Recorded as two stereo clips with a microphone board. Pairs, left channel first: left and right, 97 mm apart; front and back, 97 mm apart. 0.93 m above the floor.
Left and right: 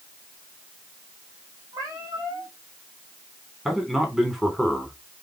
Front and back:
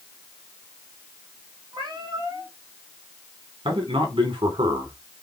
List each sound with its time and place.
1.7 s a cat meowing: 135° right, 3.5 m
3.6 s a man speaking: 175° right, 3.5 m